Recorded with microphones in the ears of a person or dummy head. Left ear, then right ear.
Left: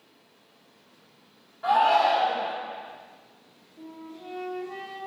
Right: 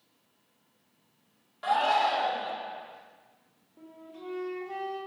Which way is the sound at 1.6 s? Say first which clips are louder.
Left 5 dB; 75° right (ahead or behind).